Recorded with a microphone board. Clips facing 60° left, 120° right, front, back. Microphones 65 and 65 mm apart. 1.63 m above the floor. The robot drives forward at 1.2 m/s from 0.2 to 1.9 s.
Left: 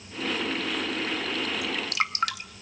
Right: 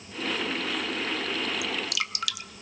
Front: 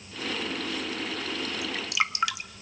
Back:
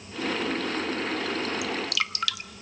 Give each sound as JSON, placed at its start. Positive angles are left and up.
{"t": 1.6, "sound": "dripping", "azimuth_deg": 35, "distance_m": 1.3}